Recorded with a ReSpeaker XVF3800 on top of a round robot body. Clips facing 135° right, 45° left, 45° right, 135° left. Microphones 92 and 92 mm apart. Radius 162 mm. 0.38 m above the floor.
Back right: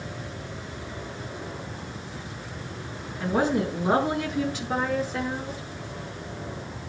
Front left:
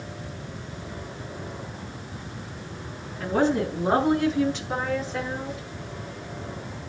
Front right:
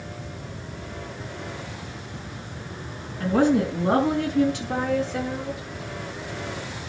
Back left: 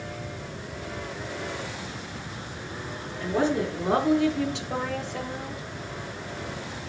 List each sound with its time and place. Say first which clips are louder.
3.2 s a woman speaking: front left 1 dB, front right 5 dB; 55° right, 5 m; by 5.6 s 50° right, 7.5 m